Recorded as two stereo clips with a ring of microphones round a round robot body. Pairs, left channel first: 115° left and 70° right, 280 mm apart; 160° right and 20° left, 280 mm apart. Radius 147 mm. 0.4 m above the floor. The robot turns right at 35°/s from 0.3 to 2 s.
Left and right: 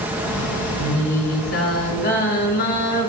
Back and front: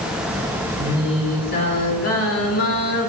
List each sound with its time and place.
0.8 s singing: 120° left, 3 m; by 3.1 s 165° left, 3 m